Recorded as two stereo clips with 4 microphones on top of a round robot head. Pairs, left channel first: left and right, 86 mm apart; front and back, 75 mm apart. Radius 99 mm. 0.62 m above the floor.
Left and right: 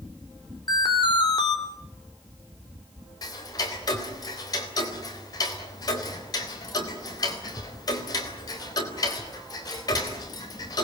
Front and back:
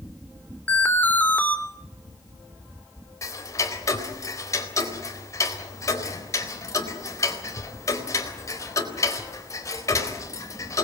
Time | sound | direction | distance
0.7 | an alarm | 65° left | 4 m
3.2 | ticking | 45° left | 3.5 m